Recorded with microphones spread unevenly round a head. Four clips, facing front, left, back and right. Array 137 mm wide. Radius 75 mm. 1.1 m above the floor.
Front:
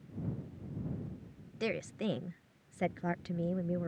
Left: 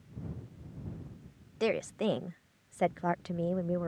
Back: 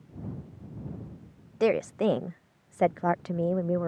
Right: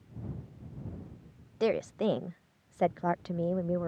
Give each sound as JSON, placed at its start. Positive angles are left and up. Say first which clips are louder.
{"t": 1.6, "sound": "a woman speaking", "louder": "right 2 dB, back 12 dB", "azimuth_deg": -170}